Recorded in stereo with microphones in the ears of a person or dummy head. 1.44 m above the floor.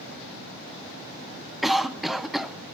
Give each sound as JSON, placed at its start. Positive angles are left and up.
{"t": 1.6, "sound": "a cough", "side_deg": -5, "distance_m": 0.8}